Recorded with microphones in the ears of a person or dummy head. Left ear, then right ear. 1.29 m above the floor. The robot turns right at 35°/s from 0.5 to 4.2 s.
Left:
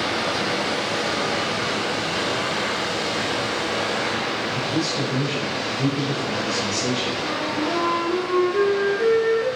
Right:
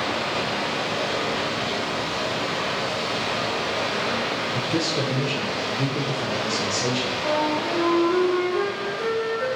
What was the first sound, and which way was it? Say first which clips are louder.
Running water: left 2 dB; 90° left.